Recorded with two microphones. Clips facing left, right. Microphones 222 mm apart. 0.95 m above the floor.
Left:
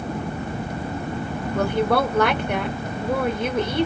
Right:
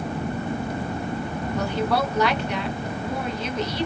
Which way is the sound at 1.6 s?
55° left (ahead or behind).